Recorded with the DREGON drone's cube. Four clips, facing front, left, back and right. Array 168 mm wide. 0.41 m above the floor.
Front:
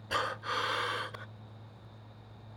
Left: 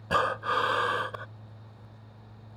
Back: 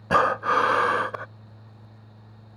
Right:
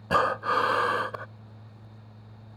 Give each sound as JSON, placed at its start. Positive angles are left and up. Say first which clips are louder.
{"t": 0.1, "sound": "breathing", "louder": "right 3 dB, back 13 dB", "azimuth_deg": -165}